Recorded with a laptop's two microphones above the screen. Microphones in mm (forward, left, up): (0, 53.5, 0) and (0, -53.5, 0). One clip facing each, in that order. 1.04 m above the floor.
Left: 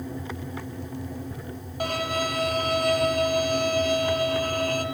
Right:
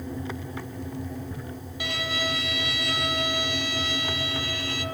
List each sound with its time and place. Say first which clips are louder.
1.8 s a violin: left 5 dB; 50° left (ahead or behind), 1.7 m